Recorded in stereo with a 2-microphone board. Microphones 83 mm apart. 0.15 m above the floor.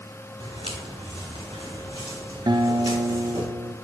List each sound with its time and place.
0.4 s footsteps: 80° right, 2 m; by 3.5 s 70° right (ahead or behind), 4.5 m
2.5 s a guitar: 65° right (ahead or behind), 0.6 m